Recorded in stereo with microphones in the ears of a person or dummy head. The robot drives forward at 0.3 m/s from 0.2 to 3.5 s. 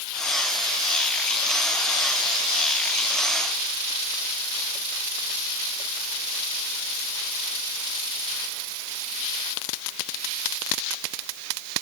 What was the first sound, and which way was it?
Only background noise.